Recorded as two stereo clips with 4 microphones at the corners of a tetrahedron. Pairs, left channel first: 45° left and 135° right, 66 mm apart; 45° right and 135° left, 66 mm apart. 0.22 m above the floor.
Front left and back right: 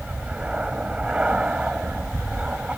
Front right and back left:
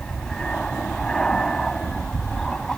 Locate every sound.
0.0 s an aircraft: 100° right